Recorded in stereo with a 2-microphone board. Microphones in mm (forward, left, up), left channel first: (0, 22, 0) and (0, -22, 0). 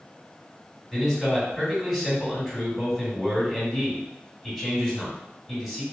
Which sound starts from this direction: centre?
A man speaking, at 0.9 s.